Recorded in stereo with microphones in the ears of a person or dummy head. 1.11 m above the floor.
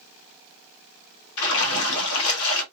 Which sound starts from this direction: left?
A splash, at 1.4 s.